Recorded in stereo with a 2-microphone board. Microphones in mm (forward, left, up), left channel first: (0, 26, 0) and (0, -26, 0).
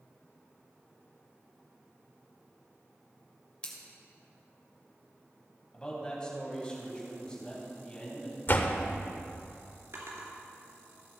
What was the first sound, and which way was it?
Scissors, 25° left (ahead or behind).